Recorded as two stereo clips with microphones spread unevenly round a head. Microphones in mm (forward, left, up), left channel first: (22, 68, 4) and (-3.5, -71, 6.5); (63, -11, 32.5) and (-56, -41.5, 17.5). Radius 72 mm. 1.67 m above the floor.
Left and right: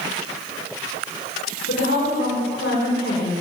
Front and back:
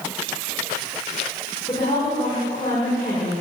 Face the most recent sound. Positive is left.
turn(degrees=75)